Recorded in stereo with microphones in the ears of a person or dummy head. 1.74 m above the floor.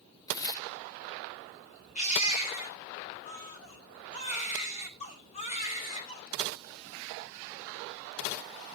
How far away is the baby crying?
About 3 m.